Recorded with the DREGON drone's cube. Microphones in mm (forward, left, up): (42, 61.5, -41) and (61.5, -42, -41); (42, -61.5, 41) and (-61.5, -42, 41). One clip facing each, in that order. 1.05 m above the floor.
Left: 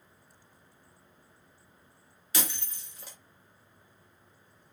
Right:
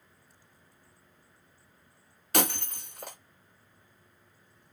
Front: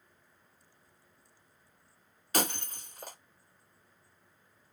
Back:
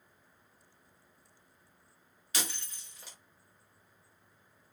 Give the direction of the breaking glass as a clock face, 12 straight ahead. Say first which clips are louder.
Right 8 dB, front 9 dB; 2 o'clock.